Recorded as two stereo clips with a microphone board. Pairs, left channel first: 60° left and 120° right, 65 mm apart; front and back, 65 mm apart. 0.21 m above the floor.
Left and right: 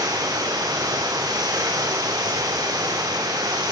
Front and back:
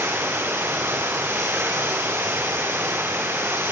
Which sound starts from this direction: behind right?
Running water, at 0.0 s.